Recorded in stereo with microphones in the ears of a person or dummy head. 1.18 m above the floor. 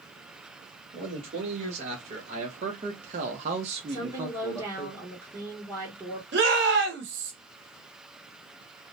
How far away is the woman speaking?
About 1.5 m.